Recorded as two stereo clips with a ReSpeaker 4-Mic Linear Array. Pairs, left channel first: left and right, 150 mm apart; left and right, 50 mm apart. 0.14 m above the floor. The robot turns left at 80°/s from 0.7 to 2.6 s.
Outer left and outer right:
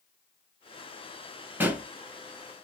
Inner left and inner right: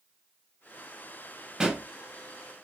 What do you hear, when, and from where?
1.6 s a pop: 10° right (ahead or behind), 1.4 m; by 1.9 s 5° right (ahead or behind), 1.4 m